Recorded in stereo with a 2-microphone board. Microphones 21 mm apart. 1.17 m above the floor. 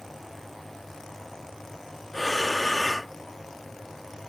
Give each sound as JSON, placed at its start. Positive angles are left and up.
{"t": 2.1, "sound": "breathing", "side_deg": 0}